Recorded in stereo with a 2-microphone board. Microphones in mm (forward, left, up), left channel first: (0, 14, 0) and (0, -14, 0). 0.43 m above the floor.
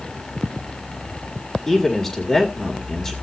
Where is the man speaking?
10° left (ahead or behind), 1.7 m.